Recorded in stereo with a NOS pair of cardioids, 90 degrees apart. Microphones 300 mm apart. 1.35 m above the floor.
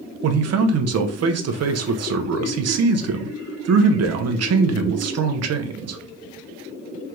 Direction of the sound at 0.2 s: 55° right.